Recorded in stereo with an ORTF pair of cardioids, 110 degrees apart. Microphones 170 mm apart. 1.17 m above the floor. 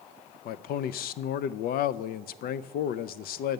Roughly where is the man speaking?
Ahead left.